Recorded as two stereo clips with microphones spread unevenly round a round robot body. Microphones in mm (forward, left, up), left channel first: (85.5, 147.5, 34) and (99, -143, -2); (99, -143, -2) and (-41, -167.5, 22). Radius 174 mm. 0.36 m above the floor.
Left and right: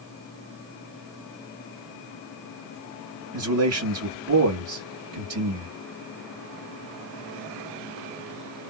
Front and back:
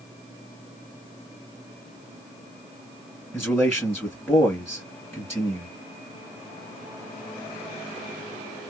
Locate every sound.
3.3 s a man speaking: 65° right, 2.5 m